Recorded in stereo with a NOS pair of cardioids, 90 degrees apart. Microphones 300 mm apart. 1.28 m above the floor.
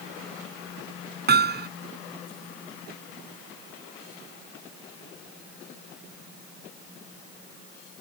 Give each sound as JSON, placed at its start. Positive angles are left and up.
{"t": 1.3, "sound": "hammering", "azimuth_deg": -35}